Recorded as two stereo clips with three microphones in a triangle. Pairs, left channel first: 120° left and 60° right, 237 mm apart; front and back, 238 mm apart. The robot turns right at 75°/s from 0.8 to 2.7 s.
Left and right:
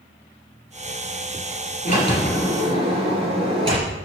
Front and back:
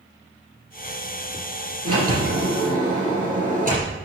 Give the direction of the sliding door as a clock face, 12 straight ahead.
6 o'clock.